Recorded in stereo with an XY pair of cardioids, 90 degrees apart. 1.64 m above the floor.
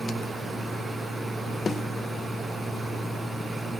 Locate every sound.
0.0 s a machine running: 15° right, 7 m
1.7 s a snare drum: 45° left, 1.4 m